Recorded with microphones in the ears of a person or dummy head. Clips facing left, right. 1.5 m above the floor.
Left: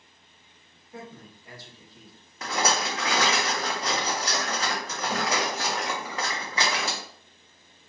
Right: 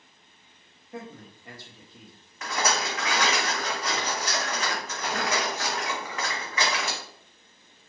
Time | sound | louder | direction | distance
0.9 | a man speaking | right 2 dB | 50° right (ahead or behind) | 1.4 m
2.4 | a rattle | left 1 dB | 30° left (ahead or behind) | 0.9 m